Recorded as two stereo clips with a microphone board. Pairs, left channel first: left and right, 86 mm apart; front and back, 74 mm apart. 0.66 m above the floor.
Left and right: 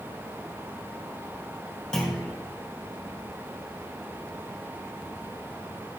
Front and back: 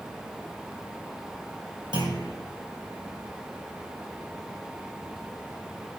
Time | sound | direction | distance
1.9 | a clunk | 175° left | 4 m